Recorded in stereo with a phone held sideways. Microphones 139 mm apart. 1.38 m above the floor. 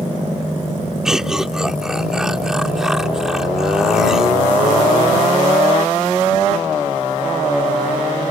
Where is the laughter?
5° right (ahead or behind).